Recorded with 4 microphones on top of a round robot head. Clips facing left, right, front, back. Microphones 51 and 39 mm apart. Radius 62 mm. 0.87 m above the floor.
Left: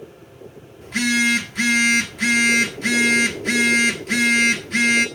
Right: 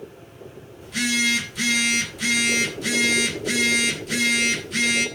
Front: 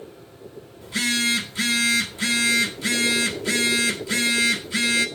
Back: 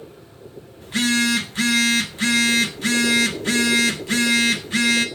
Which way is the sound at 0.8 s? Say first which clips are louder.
Left 4 dB, back 3 dB; 140° left.